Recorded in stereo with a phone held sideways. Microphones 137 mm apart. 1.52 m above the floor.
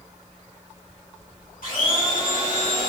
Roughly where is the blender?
Left.